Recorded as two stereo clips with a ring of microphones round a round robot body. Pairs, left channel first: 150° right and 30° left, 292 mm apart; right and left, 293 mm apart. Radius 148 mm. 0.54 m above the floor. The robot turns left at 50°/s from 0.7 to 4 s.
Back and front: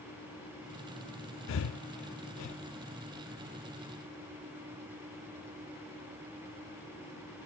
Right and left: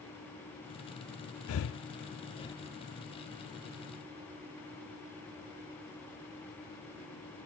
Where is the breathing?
115° right, 0.5 m; by 2.5 s 170° right, 0.5 m.